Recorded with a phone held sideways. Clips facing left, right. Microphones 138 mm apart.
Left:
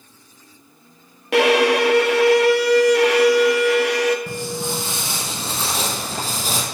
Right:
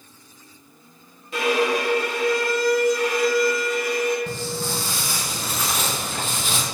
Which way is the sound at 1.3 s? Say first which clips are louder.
Left 6 dB; 75° left (ahead or behind).